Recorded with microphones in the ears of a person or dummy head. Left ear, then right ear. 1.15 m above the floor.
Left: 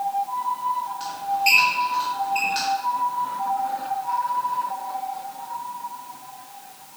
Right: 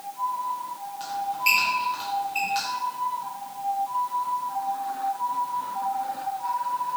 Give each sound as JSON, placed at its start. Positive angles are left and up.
{"t": 1.0, "sound": "a squeak", "side_deg": -5, "distance_m": 1.3}